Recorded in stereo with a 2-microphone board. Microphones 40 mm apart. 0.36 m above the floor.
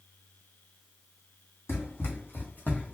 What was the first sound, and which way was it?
Running footsteps, 70° left (ahead or behind).